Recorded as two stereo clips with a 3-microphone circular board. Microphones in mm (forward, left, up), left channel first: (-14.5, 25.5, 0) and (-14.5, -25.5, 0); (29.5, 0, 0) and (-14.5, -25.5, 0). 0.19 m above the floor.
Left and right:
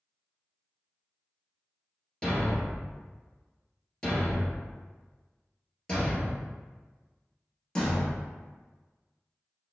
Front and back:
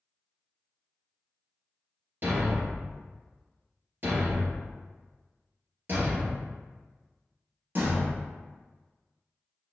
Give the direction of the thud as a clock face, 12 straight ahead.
6 o'clock.